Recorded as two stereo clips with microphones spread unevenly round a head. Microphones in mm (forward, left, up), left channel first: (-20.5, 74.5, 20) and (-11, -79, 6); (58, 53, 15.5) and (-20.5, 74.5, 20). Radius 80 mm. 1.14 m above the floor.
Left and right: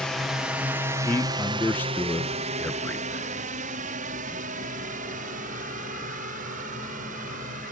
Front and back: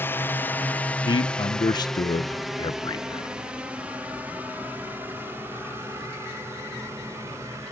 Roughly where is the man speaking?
Ahead.